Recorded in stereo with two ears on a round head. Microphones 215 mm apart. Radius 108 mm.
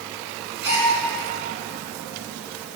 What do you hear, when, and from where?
0.6 s a gasp: 45° right (ahead or behind), 9.5 m